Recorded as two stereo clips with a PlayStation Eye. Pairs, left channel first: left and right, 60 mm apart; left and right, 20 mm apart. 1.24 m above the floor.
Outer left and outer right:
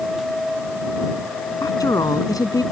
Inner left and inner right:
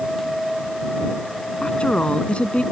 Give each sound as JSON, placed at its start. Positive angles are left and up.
{"t": 1.6, "sound": "a woman speaking", "side_deg": 70}